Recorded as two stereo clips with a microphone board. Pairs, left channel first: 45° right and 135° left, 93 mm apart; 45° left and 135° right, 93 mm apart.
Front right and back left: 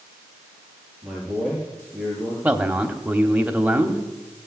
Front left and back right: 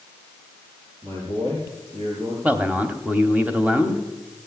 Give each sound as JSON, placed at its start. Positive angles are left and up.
{"t": 1.0, "sound": "a man speaking", "azimuth_deg": -140, "distance_m": 5.5}
{"t": 2.4, "sound": "a man speaking", "azimuth_deg": -175, "distance_m": 1.0}